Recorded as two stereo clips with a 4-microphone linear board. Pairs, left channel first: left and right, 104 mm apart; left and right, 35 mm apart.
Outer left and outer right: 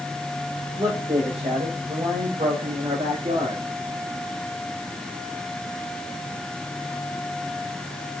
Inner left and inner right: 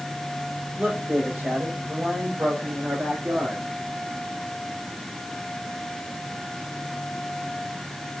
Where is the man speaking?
60° right (ahead or behind), 6.5 m; by 3.6 s 65° right (ahead or behind), 8 m.